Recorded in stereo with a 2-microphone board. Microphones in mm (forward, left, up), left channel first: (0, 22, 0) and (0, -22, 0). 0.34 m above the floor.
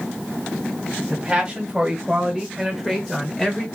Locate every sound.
1.1 s a man speaking: 20° right (ahead or behind), 3 m; by 3.6 s 15° left (ahead or behind), 1.7 m